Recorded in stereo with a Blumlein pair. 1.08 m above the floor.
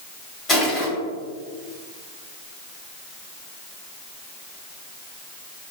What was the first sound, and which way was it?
Crushing, 20° left.